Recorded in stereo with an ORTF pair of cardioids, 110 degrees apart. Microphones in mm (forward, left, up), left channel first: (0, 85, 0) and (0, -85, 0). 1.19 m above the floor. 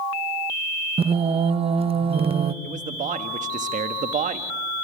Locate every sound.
1.0 s singing: 35° right, 1.3 m
2.6 s a man speaking: 45° right, 1.6 m